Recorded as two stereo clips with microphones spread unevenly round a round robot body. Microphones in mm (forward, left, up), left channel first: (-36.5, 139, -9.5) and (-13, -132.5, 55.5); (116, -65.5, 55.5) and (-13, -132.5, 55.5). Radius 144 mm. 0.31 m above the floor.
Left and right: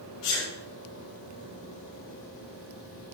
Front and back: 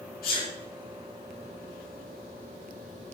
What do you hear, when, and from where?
0.2 s a sneeze: 45° left, 4.5 m